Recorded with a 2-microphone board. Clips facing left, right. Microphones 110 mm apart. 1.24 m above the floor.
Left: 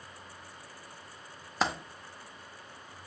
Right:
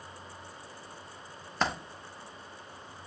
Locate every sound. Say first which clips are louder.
1.6 s a dropped coin: even; 10° left (ahead or behind), 0.7 m